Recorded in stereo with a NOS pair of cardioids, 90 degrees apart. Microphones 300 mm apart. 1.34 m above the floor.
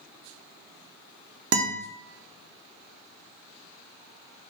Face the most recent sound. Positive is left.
turn(degrees=-50)